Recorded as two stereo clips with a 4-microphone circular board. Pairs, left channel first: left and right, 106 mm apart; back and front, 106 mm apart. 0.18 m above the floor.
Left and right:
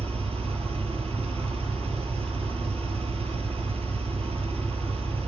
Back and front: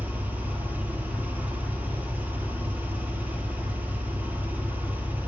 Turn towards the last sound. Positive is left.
turn(degrees=-75)